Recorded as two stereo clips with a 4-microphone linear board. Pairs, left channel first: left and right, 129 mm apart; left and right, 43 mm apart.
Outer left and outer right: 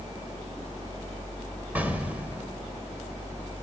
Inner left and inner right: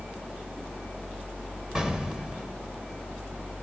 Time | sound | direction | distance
1.8 | an explosion | 10° right (ahead or behind) | 1.5 m